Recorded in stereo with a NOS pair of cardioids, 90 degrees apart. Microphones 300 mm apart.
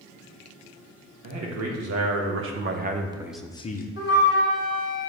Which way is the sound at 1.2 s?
65° right.